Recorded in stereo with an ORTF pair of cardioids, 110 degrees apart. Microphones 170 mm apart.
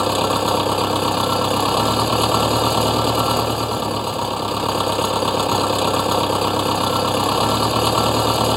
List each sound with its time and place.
0.0 s an engine running: straight ahead